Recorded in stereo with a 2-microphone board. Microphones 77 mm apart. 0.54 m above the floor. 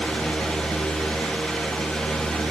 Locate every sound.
Only background noise.